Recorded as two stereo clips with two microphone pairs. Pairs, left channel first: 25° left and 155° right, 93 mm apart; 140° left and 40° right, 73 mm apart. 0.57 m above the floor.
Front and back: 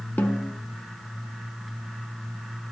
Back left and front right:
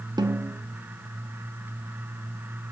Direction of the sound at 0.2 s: 45° right.